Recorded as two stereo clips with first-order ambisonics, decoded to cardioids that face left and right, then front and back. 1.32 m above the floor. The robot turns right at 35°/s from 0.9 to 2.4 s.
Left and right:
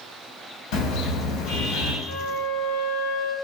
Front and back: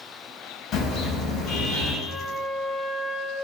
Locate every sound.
0.7 s a car horn: 65° left, 7.5 m; by 1.9 s 100° left, 7.5 m
2.0 s a flute: 55° left, 4 m; by 3.3 s 70° left, 4 m